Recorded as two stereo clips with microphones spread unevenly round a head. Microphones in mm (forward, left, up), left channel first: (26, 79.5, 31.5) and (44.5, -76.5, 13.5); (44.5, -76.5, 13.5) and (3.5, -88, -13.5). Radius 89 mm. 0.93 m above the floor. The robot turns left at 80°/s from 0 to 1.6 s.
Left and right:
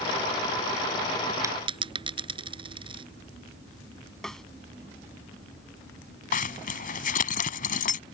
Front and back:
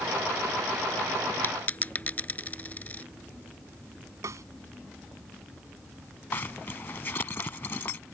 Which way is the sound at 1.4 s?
10° right.